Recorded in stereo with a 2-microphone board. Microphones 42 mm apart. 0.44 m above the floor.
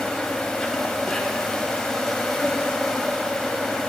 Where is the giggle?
No giggle in this recording.